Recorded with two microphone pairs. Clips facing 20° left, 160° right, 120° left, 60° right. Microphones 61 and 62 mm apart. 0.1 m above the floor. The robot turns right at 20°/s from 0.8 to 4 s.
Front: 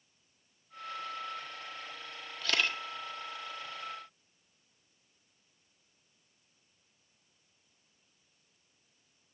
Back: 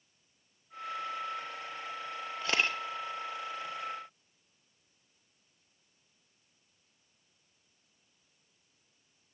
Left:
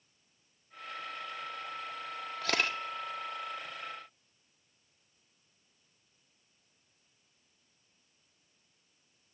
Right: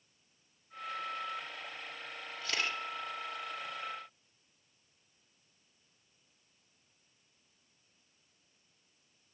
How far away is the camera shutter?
About 1.6 m.